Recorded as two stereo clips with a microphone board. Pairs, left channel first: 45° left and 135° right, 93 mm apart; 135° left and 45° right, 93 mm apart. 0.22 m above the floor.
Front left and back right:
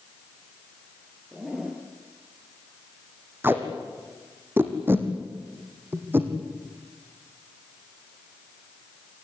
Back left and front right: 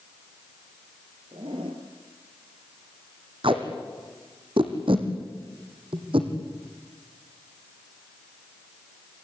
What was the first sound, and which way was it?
A zipper, 55° right.